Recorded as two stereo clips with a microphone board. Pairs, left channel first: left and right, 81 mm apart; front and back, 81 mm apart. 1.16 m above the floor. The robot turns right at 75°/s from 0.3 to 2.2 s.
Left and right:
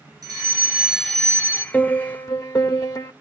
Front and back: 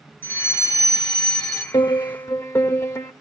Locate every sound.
0.2 s a fire alarm: 60° right, 2.5 m; by 1.6 s 40° left, 2.5 m
1.7 s a piano: 20° left, 1.7 m; by 3.1 s 55° left, 1.7 m